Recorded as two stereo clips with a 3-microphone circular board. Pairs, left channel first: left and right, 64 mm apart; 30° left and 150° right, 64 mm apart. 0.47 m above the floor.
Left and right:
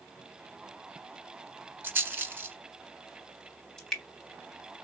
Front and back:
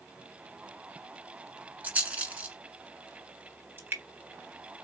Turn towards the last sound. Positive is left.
turn(degrees=170)